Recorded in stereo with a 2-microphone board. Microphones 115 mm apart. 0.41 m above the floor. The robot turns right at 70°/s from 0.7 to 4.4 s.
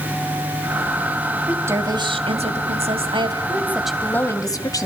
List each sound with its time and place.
1.5 s a woman speaking: 170° right, 2.5 m; by 4.9 s 35° left, 2.5 m